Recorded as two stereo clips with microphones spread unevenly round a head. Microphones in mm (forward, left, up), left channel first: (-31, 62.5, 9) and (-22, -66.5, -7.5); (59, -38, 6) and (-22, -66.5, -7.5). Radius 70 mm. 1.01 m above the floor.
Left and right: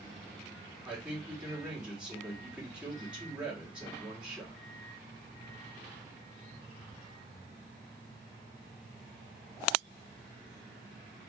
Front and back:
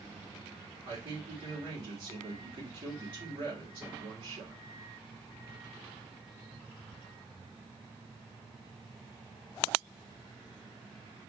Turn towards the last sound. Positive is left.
turn(degrees=-165)